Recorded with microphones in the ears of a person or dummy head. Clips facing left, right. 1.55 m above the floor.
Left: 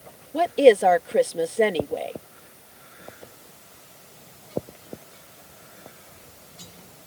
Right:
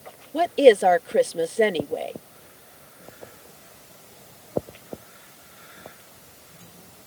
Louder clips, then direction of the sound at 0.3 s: Even; centre (ahead or behind).